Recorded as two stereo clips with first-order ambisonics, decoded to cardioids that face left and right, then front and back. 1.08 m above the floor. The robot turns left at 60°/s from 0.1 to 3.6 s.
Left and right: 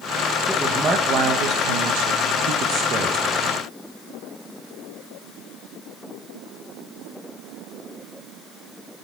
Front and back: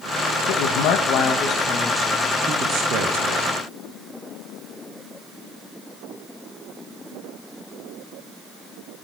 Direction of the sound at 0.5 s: Straight ahead.